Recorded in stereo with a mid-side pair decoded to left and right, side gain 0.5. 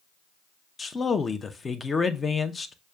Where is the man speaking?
30° left, 0.6 m.